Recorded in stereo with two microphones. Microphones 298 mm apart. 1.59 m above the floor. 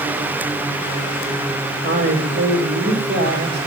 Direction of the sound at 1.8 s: 35° right (ahead or behind).